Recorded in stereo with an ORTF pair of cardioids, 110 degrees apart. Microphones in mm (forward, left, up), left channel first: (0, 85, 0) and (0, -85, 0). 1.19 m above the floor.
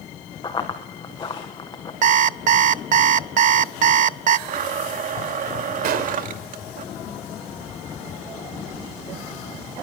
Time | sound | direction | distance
0.4 | running footsteps | 25° left | 4 m
2.0 | an alarm clock | 50° right | 0.8 m
4.5 | a blender | 50° right | 2 m
5.8 | a gunshot | 65° right | 3 m